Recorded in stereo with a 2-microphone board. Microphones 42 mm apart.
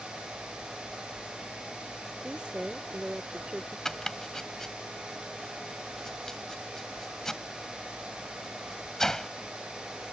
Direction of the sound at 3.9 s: 10° left (ahead or behind).